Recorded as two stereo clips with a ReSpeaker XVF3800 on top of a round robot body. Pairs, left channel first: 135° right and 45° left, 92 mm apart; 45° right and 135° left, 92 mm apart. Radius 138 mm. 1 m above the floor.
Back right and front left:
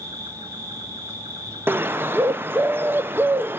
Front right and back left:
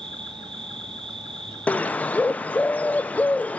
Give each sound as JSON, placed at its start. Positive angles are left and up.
{"t": 0.0, "sound": "an insect", "azimuth_deg": 100, "distance_m": 8.5}
{"t": 1.7, "sound": "a bird", "azimuth_deg": 10, "distance_m": 0.8}